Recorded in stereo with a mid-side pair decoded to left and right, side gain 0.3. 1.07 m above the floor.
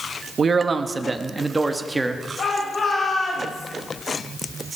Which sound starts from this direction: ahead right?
A man speaking, at 0.4 s.